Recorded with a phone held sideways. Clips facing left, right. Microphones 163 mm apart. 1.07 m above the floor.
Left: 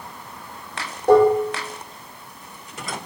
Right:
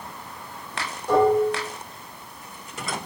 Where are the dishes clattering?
65° left (ahead or behind), 1.9 m.